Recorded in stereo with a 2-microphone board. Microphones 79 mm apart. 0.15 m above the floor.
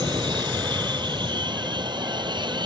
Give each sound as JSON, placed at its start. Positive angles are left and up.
{"t": 0.0, "sound": "an aircraft", "side_deg": -70}